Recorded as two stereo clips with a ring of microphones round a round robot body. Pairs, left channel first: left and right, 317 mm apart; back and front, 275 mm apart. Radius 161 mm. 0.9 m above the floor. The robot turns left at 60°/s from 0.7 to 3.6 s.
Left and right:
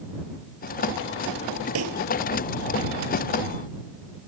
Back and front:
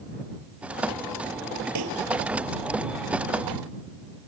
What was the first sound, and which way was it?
A pop, 40° right.